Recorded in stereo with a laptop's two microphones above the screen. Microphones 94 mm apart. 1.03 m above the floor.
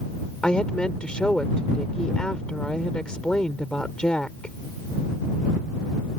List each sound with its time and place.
0.4 s a woman speaking: 10° left (ahead or behind)